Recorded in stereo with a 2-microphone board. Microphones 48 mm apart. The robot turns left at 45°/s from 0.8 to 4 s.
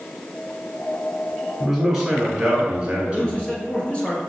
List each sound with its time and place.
1.6 s a man speaking: 5° left (ahead or behind), 1.3 m; by 3.5 s 20° right (ahead or behind), 1.3 m
3.1 s a man speaking: 25° left (ahead or behind), 1.4 m